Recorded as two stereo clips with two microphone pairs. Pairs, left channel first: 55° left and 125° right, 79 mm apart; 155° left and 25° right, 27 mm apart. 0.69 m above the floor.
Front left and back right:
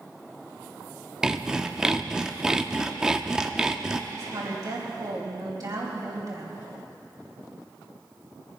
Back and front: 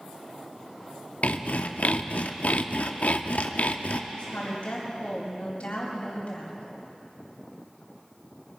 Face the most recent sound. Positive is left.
turn(degrees=-160)